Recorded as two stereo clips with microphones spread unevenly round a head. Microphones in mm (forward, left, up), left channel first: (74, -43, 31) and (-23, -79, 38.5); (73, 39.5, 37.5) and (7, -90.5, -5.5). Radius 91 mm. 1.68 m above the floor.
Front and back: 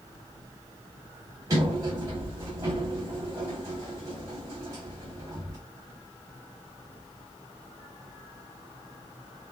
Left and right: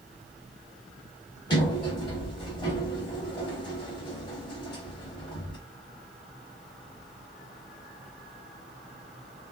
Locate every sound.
1.5 s a sliding door: 130° left, 0.7 m